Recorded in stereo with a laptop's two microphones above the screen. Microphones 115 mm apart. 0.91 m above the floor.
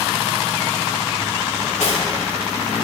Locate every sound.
1.6 s cutlery clinking: 85° left, 1.6 m